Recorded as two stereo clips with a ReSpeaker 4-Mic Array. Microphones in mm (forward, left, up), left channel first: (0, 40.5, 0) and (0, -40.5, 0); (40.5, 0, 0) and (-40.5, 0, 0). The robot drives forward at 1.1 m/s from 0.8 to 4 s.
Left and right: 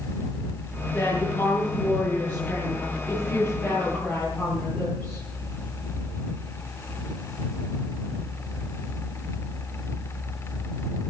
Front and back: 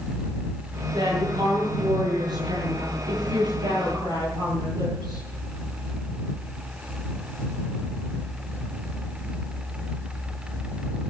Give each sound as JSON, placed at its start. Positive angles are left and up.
{"t": 0.9, "sound": "a woman speaking", "azimuth_deg": 160, "distance_m": 9.0}